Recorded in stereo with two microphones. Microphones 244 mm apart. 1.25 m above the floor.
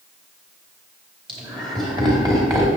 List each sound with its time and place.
1.3 s laughter: 20° right (ahead or behind), 4 m; by 2.7 s 15° right (ahead or behind), 3.5 m